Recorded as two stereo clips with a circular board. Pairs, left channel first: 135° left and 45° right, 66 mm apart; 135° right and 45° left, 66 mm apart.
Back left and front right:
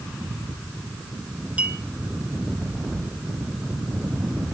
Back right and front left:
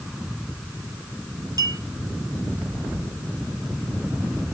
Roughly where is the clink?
Ahead left.